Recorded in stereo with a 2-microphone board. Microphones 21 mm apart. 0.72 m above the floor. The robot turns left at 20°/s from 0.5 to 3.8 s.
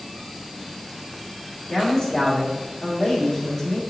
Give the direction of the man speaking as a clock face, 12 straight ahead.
10 o'clock.